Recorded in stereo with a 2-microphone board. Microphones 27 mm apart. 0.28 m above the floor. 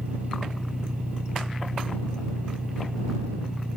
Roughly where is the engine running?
Right.